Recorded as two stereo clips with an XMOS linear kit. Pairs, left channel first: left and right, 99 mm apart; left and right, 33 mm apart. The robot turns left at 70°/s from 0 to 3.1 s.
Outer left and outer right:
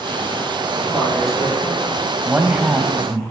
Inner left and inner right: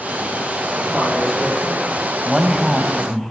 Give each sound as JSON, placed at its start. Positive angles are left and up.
{"t": 0.7, "sound": "a man speaking", "azimuth_deg": -130, "distance_m": 5.5}
{"t": 2.2, "sound": "a man speaking", "side_deg": -20, "distance_m": 1.0}